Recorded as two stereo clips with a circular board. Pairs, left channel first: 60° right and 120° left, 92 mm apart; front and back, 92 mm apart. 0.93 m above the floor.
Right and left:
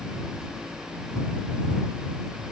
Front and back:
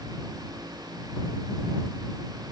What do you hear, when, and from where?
Only background noise.